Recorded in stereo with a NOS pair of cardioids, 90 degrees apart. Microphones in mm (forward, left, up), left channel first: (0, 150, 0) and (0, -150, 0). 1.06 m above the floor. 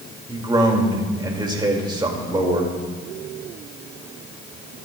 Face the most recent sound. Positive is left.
turn(degrees=-15)